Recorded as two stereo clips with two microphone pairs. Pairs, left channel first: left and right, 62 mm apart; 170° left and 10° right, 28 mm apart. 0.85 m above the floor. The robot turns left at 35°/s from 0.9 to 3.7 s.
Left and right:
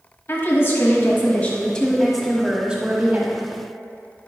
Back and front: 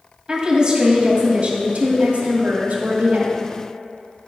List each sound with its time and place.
0.3 s a woman speaking: 40° left, 1.7 m; by 3.5 s 50° right, 1.7 m